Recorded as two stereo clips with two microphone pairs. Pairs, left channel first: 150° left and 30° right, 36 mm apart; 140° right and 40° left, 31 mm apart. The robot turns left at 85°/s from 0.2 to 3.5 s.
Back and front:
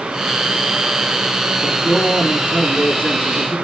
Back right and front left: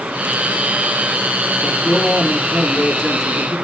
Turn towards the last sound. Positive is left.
turn(degrees=100)